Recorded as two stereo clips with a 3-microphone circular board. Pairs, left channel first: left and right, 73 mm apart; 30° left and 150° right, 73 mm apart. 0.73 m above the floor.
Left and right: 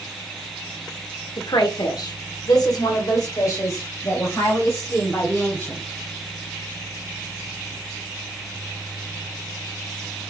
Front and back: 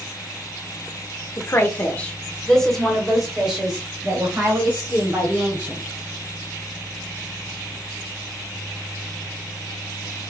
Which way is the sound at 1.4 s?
80° left.